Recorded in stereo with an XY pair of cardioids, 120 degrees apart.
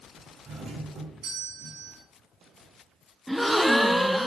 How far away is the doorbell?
About 4.5 m.